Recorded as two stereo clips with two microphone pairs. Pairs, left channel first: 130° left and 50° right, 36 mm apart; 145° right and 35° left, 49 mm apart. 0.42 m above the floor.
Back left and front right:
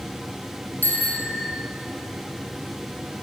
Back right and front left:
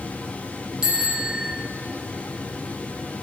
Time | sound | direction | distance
0.8 | a bicycle bell | 105° left | 3.5 m